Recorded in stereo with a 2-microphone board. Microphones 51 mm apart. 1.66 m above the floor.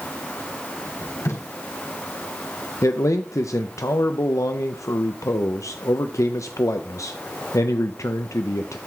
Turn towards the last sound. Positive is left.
turn(degrees=80)